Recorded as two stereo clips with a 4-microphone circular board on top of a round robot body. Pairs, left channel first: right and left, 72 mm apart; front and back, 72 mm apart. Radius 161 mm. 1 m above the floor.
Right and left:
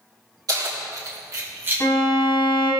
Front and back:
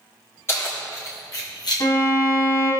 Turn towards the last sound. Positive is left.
turn(degrees=-40)